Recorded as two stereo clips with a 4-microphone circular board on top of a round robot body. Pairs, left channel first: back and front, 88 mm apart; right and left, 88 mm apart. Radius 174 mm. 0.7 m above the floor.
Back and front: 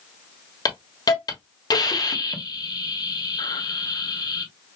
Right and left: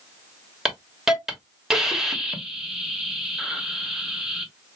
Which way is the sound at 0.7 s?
175° left.